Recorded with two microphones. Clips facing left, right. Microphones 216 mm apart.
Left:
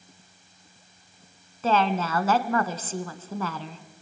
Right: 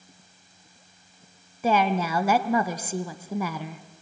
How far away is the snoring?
No snoring in this recording.